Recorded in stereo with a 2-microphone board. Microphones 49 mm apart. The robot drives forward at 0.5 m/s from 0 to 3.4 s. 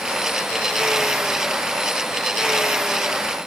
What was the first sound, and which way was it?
Only background noise.